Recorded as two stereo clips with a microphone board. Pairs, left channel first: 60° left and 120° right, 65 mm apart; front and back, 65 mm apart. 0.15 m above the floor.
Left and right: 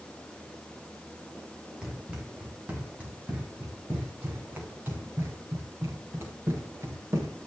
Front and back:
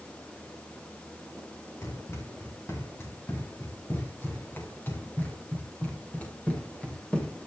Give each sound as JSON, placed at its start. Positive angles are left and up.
{"t": 1.8, "sound": "running footsteps", "azimuth_deg": -45, "distance_m": 7.0}